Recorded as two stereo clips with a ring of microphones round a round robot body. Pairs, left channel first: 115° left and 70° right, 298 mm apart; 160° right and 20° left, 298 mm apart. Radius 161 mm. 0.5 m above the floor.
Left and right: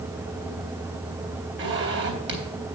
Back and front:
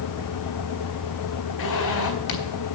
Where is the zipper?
115° right, 3.5 m.